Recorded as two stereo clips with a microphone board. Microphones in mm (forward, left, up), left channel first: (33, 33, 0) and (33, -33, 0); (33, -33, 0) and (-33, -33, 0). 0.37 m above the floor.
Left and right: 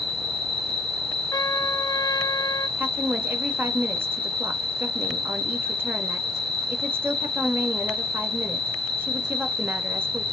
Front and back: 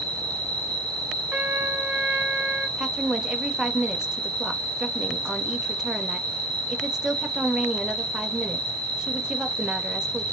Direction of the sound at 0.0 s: 175° left.